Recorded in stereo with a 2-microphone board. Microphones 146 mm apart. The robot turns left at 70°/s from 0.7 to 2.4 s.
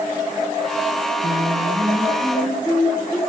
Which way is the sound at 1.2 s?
105° right.